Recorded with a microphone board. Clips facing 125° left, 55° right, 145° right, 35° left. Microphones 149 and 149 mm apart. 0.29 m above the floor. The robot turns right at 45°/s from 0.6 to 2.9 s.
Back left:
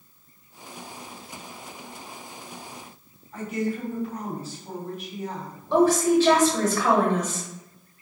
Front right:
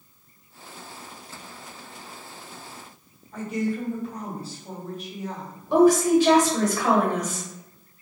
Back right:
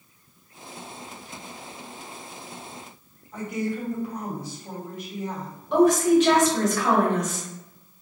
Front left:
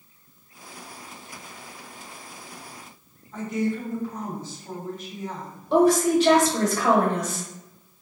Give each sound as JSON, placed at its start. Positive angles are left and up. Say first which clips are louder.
{"t": 3.3, "sound": "a woman speaking", "louder": "front right 1 dB, front left 2 dB", "azimuth_deg": -80, "distance_m": 1.6}
{"t": 5.7, "sound": "a woman speaking", "louder": "front right 2 dB, back right 1 dB", "azimuth_deg": 10, "distance_m": 1.0}